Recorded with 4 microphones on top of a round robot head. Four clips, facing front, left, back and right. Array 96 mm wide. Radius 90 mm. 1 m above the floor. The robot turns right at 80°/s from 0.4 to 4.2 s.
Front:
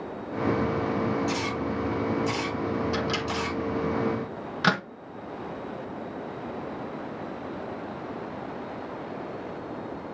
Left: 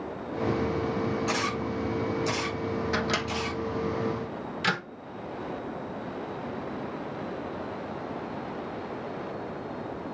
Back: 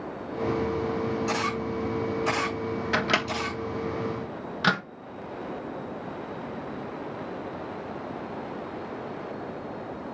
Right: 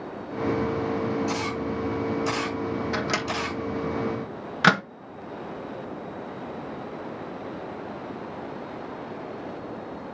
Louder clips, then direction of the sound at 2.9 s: Right 1 dB, back 2 dB; straight behind.